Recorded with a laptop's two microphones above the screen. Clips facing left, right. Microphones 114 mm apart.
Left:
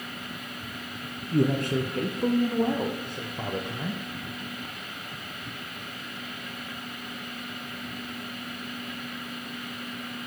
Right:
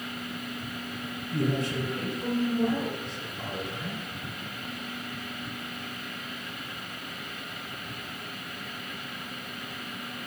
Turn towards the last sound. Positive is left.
turn(degrees=55)  # may be behind; listen again after turning